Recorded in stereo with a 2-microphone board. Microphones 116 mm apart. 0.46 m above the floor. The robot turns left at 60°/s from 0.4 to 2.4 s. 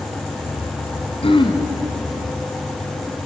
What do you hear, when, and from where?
1.2 s throat clearing: 55° left (ahead or behind), 2.5 m; by 1.6 s 30° left (ahead or behind), 2.5 m